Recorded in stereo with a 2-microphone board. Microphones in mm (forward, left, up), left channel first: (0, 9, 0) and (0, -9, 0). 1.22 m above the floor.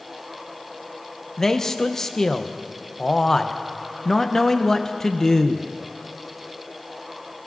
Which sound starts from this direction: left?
A man speaking, at 1.4 s.